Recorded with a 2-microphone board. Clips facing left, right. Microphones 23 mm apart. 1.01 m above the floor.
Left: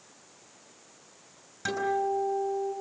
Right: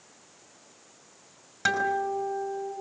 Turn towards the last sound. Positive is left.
turn(degrees=-40)  # may be behind; listen again after turning